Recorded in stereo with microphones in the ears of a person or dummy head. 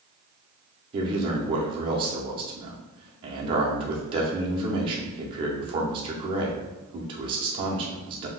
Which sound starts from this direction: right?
A man speaking, at 0.9 s.